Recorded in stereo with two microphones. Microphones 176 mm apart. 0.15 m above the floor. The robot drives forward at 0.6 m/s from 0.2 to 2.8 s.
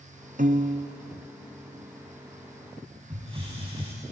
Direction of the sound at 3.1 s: 30° right (ahead or behind).